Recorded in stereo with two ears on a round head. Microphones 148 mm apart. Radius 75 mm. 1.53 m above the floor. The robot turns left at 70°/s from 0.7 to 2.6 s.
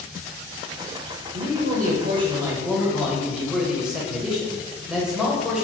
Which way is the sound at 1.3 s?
85° right.